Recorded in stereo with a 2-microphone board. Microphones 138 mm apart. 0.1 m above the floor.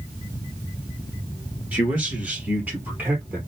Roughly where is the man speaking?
Centre.